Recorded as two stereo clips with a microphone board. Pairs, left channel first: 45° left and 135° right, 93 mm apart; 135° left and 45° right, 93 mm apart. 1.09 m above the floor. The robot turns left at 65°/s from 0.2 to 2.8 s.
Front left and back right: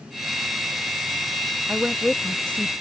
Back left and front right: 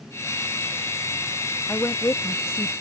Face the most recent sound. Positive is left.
turn(degrees=90)